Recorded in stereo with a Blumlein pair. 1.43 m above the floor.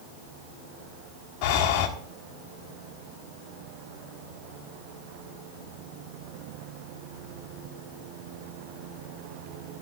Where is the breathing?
40° left, 1.5 m.